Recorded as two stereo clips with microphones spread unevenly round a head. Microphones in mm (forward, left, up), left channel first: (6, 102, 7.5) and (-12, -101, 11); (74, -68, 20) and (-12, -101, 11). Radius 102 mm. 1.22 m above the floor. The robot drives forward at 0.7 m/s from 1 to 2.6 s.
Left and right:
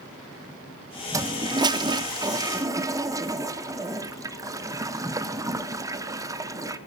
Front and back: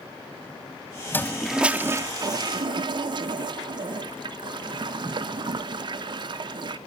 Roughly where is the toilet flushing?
Ahead right.